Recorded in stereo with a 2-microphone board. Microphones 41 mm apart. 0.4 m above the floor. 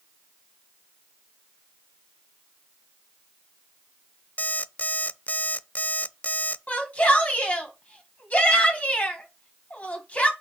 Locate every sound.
4.4 s an alarm clock: 40° left (ahead or behind), 0.5 m
6.7 s a shout: 40° left (ahead or behind), 2 m